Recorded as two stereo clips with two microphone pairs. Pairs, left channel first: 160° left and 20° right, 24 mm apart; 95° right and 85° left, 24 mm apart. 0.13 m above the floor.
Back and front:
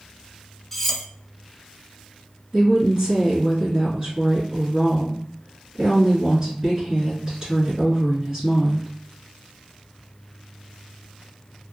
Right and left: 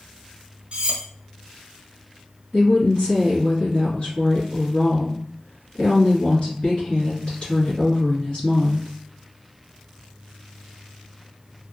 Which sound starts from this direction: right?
A woman speaking, at 2.5 s.